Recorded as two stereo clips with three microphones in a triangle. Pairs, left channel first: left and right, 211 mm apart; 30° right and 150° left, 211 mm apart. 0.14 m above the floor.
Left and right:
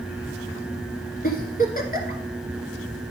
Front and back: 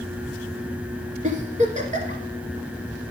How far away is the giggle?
About 1.2 m.